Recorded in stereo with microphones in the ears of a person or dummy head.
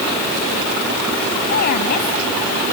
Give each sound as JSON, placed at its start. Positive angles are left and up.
{"t": 1.5, "sound": "a woman speaking", "side_deg": 60}